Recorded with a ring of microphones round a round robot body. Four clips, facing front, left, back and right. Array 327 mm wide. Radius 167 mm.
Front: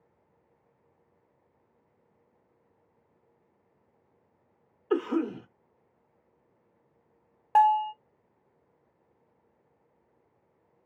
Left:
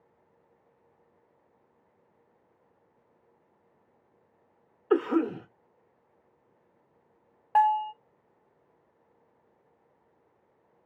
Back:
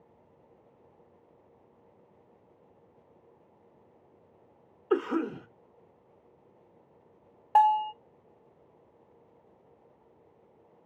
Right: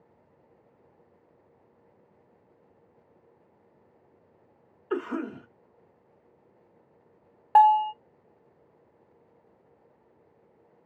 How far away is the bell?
About 0.6 m.